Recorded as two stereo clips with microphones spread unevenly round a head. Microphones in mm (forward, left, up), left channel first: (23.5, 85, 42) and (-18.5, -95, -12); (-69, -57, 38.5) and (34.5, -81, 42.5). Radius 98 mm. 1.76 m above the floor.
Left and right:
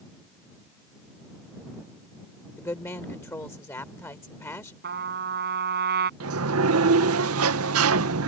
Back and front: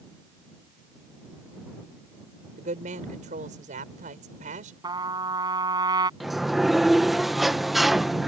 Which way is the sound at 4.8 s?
60° right.